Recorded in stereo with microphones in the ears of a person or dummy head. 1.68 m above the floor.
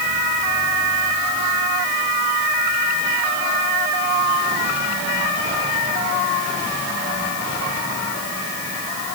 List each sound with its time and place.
Only background noise.